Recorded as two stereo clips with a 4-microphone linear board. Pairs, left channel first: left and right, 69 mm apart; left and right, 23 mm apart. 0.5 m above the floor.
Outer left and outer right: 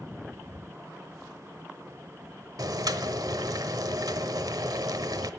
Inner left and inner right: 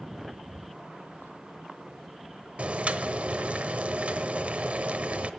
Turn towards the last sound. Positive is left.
turn(degrees=-75)  # may be behind; listen again after turning